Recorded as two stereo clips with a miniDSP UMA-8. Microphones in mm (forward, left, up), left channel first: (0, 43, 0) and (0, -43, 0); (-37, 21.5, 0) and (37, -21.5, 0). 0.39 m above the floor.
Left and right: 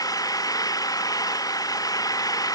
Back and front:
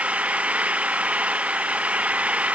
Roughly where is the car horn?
No car horn in this recording.